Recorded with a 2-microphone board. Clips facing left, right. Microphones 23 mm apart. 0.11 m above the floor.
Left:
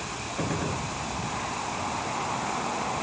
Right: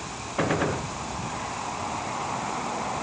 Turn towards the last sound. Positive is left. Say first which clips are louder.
# right 6 dB
turn(degrees=-40)  # may be behind; listen again after turning